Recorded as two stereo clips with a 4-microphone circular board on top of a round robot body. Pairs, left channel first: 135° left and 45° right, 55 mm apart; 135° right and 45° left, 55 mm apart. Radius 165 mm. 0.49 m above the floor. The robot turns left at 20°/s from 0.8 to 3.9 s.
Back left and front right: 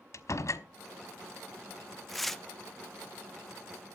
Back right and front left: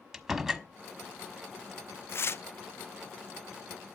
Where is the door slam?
125° left, 1.3 m.